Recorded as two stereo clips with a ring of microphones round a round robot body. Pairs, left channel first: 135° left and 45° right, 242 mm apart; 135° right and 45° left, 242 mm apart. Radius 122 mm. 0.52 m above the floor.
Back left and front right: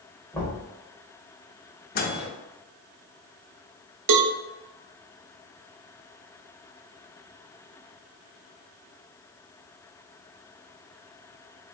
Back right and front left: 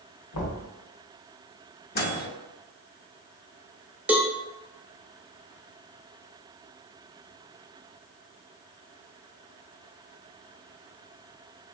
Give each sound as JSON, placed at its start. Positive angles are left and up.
{"t": 0.3, "sound": "knocking", "azimuth_deg": -145, "distance_m": 1.4}
{"t": 1.9, "sound": "a microwave", "azimuth_deg": 180, "distance_m": 0.8}
{"t": 4.1, "sound": "a cowbell", "azimuth_deg": -40, "distance_m": 0.5}